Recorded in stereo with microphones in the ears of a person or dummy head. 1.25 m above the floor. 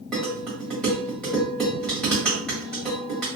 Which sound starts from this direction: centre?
Dishes clattering, at 0.1 s.